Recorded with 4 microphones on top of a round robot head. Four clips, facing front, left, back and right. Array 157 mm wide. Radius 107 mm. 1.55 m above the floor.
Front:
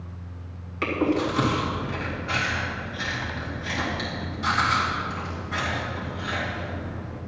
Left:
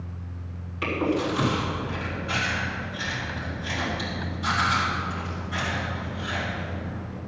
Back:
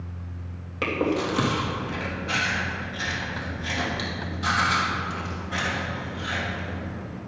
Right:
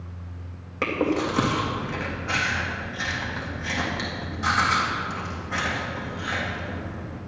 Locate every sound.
0.8 s chewing: 120° right, 2.5 m